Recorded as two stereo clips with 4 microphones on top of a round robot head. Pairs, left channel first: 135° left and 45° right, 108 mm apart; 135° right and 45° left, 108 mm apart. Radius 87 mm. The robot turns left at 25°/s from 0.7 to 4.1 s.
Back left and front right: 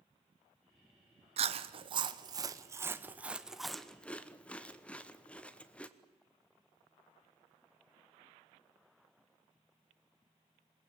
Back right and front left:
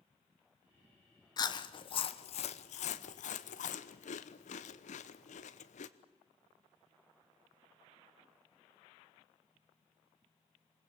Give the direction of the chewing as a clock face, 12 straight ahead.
3 o'clock.